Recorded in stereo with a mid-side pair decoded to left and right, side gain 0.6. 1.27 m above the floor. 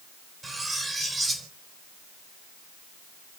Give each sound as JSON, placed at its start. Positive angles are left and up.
{"t": 0.4, "sound": "cutlery clinking", "azimuth_deg": -20, "distance_m": 3.5}